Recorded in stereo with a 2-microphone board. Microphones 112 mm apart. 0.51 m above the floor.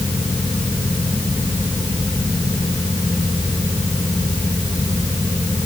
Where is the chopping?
No chopping in this recording.